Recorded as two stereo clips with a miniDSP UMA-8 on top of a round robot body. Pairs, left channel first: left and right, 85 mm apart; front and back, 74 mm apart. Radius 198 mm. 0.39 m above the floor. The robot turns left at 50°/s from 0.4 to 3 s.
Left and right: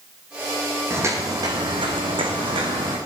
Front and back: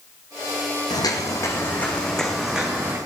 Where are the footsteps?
25° right, 1.9 m; by 3.0 s 120° right, 3 m.